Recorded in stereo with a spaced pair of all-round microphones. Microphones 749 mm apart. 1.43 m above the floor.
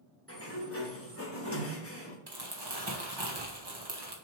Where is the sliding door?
20° left (ahead or behind), 1.2 m.